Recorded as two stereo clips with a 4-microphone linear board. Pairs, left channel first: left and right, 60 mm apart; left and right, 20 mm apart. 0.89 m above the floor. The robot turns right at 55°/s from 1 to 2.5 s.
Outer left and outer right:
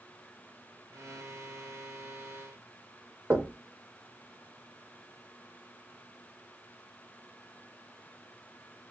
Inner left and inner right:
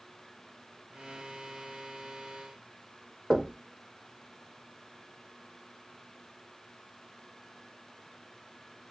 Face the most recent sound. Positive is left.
turn(degrees=-35)  # may be behind; listen again after turning